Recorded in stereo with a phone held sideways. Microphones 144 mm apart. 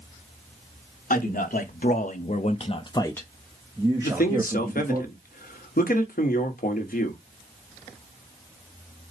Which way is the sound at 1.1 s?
80° left.